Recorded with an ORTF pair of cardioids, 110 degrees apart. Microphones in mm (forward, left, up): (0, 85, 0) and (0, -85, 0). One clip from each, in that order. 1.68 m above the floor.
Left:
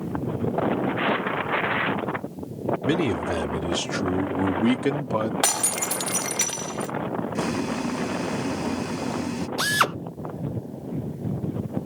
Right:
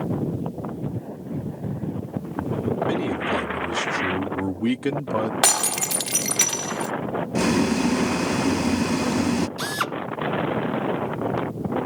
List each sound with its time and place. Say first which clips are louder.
2.9 s a man speaking: left 3 dB; 35° left; by 5.3 s straight ahead
5.4 s breaking glass: right 3 dB; 20° right
7.3 s boiling: right 9 dB; 30° right
9.6 s a drill: left 4 dB; 30° left